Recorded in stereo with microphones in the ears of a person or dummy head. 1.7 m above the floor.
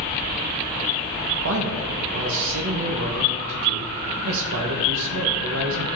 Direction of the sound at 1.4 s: 75° right (ahead or behind).